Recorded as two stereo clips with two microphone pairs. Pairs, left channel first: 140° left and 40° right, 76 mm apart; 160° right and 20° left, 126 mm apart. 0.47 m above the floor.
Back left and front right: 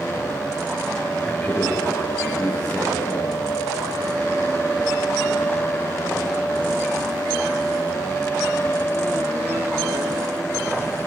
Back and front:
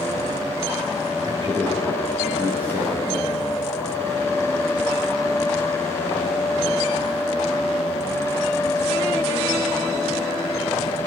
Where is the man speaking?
65° left, 8.5 m; by 3.4 s 55° left, 9.5 m.